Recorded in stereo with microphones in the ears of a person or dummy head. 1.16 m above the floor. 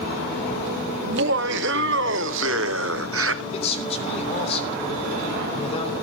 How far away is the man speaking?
About 3 m.